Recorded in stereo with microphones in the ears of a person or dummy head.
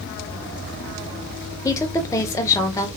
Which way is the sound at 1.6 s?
15° left (ahead or behind).